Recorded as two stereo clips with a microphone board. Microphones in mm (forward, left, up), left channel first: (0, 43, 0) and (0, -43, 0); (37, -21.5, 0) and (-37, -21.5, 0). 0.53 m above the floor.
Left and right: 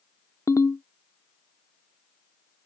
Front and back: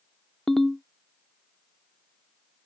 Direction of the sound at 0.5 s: 80° left.